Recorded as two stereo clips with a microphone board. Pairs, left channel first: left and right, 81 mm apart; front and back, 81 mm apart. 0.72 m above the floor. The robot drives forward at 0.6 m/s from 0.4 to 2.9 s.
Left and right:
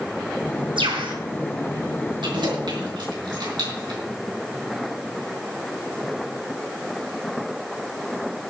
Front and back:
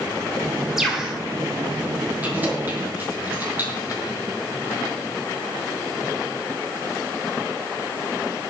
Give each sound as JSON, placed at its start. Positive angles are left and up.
{"t": 0.8, "sound": "a bird", "azimuth_deg": -95, "distance_m": 4.0}
{"t": 2.2, "sound": "keys jangling", "azimuth_deg": -110, "distance_m": 6.0}